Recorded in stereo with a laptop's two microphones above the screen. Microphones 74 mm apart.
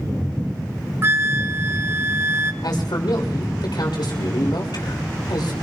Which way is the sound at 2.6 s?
75° left (ahead or behind).